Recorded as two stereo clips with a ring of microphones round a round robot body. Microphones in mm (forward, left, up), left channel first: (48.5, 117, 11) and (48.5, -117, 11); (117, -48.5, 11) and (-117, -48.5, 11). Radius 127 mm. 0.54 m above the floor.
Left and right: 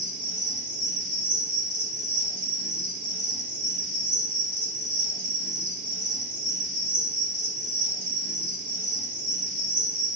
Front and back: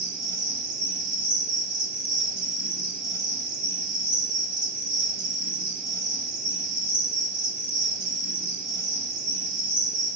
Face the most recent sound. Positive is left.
turn(degrees=-115)